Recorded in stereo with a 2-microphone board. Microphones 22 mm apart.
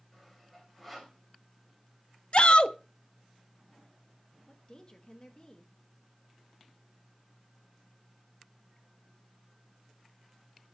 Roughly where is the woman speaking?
Left.